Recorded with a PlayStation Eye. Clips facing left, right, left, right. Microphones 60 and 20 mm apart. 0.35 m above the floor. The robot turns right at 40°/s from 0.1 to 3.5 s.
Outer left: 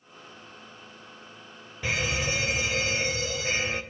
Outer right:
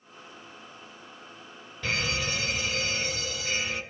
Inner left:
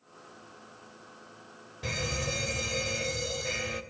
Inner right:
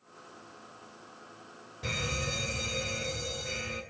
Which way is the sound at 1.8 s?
30° left.